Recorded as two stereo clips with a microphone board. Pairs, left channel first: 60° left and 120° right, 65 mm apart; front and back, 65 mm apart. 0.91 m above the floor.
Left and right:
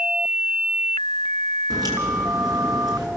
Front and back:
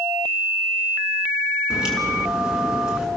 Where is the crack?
100° right, 6 m.